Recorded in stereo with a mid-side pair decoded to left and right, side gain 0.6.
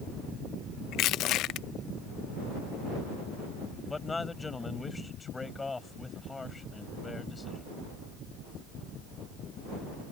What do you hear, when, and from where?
0.9 s crushing: 65° left
3.9 s a man speaking: 20° left